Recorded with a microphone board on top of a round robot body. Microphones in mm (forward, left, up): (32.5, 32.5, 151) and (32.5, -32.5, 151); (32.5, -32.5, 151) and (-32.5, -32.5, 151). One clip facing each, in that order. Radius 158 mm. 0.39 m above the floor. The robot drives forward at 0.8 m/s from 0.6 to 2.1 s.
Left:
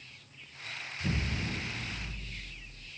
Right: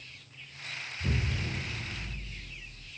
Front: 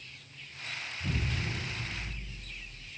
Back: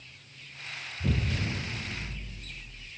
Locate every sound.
1.0 s an explosion: 175° right, 2.5 m